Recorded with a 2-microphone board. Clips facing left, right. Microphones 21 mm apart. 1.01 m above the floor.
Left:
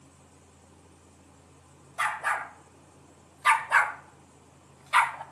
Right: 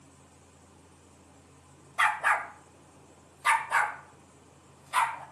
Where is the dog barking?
30° right (ahead or behind), 1.4 m; by 5.2 s 65° left (ahead or behind), 1.7 m.